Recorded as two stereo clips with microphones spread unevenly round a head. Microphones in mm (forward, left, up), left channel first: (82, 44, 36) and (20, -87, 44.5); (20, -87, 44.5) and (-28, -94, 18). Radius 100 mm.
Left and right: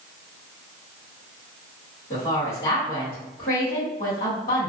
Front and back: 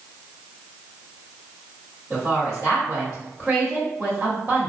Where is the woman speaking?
105° left, 1.2 m.